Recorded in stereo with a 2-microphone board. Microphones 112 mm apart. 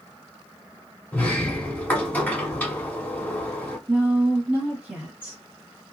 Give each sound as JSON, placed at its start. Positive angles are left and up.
{"t": 1.1, "sound": "a sliding door", "side_deg": 15, "distance_m": 0.8}
{"t": 3.9, "sound": "a woman speaking", "side_deg": -15, "distance_m": 1.1}